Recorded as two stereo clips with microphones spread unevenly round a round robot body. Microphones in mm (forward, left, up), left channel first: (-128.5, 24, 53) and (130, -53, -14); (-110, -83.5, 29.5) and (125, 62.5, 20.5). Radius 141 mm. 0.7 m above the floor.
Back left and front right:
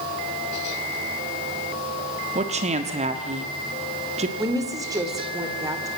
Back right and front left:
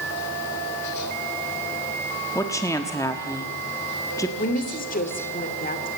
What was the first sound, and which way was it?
A woman speaking, 70° right.